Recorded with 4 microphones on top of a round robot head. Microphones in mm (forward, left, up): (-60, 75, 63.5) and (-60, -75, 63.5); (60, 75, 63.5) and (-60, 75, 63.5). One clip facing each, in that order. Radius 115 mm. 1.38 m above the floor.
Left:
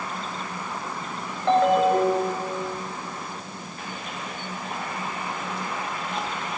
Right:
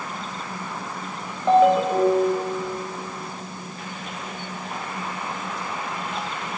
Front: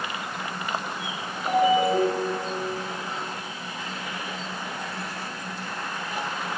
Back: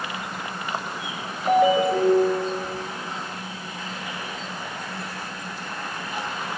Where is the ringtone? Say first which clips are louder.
Right 2 dB, back 2 dB; 175° right, 4.5 m.